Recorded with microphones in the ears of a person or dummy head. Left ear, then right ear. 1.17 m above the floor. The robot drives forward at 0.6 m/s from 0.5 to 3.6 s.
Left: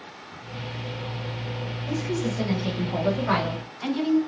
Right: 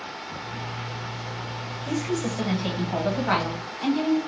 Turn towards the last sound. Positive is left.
turn(degrees=-15)  # may be behind; listen again after turning